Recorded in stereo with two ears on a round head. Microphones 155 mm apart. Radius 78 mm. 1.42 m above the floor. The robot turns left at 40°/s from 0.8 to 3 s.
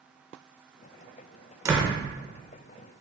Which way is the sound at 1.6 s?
20° right (ahead or behind).